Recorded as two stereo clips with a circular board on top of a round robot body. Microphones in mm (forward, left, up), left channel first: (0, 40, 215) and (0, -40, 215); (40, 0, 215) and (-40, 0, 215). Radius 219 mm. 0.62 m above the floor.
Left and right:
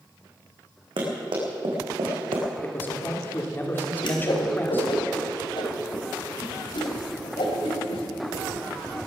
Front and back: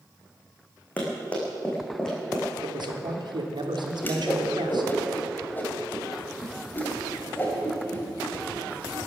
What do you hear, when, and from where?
1.0 s running footsteps: 70° right, 4 m; by 2.5 s 85° right, 3.5 m
2.6 s a man speaking: 155° left, 2.5 m
4.0 s a whoosh: 70° left, 2.5 m